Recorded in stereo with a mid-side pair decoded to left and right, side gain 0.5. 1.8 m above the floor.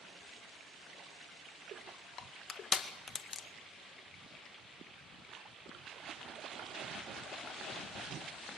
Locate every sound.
2.2 s crushing: 45° left, 1.9 m